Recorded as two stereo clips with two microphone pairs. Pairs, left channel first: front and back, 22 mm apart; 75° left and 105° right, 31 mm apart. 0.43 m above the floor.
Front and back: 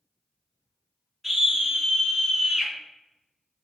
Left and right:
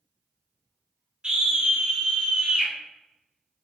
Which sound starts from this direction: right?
A scream, at 1.2 s.